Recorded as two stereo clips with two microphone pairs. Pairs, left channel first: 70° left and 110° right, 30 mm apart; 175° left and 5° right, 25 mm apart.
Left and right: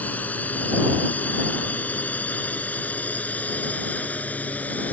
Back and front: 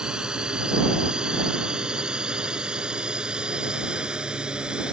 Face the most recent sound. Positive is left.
turn(degrees=50)